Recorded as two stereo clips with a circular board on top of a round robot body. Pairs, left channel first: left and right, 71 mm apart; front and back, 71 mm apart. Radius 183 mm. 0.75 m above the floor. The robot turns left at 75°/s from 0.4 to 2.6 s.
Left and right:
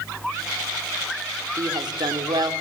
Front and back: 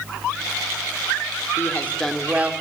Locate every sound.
1.6 s a woman speaking: 50° right, 3 m; by 2.5 s 120° right, 3 m